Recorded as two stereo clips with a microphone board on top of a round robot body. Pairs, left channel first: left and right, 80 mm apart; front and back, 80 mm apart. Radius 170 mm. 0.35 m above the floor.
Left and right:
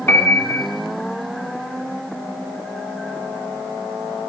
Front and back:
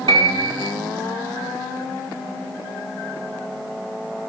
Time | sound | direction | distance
0.1 | a piano | 155° left | 1.4 m